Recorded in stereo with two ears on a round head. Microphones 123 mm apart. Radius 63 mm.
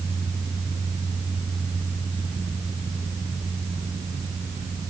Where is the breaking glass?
I don't hear breaking glass.